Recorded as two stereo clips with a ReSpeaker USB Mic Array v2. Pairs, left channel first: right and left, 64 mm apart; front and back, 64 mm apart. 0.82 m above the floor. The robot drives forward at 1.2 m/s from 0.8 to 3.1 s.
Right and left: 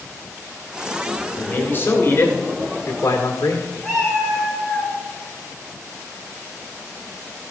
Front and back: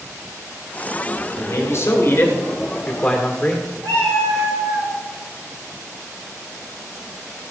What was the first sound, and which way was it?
A man speaking, 35° right.